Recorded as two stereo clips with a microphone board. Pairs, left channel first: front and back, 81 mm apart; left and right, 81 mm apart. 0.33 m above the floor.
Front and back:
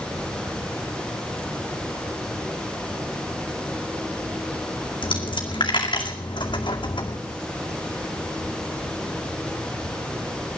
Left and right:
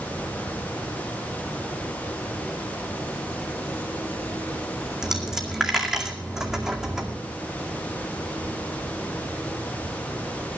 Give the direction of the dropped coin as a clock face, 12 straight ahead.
12 o'clock.